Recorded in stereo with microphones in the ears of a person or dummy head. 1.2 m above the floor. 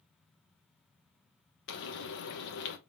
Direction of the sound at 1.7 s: 60° left (ahead or behind).